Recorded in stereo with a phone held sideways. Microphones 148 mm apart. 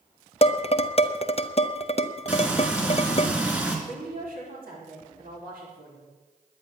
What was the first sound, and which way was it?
Dishes clattering, 45° left (ahead or behind).